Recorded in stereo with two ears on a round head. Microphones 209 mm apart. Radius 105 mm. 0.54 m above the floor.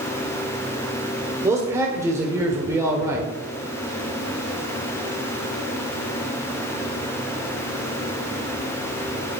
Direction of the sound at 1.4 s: 15° right (ahead or behind).